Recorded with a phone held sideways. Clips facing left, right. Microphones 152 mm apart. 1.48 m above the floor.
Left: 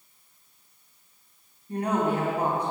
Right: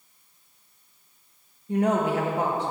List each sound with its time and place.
1.7 s a woman speaking: 80° right, 1.5 m